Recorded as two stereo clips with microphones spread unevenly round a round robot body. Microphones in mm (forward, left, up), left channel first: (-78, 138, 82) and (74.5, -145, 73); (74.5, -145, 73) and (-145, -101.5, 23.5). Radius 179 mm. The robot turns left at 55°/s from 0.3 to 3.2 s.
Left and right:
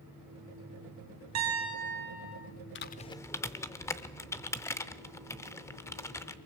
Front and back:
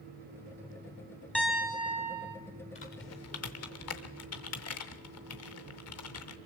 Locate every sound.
1.4 s a piano: 100° right, 4.5 m; by 2.4 s 155° right, 4.5 m
2.8 s typing on a keyboard: 60° left, 0.5 m; by 6.4 s 35° left, 0.5 m